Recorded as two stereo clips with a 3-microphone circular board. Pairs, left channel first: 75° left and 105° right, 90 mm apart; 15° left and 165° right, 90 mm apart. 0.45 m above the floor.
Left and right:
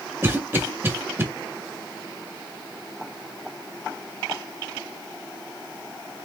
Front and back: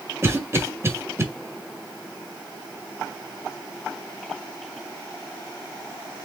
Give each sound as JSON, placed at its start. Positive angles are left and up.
{"t": 0.2, "sound": "a cough", "azimuth_deg": -140, "distance_m": 1.2}